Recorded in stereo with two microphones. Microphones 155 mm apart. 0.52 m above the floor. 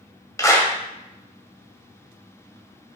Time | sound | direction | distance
0.4 | a clap | 20° left (ahead or behind) | 2 m